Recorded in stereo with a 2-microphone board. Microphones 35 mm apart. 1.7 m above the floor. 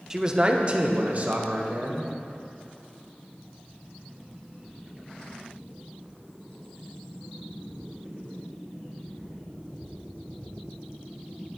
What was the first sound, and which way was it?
A man speaking, 10° right (ahead or behind).